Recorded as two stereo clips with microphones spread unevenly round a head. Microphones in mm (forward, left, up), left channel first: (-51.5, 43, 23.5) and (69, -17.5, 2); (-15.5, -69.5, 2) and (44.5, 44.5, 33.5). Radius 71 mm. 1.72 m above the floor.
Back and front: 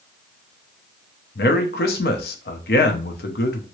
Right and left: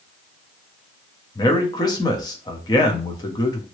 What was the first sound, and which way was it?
A man speaking, 175° left.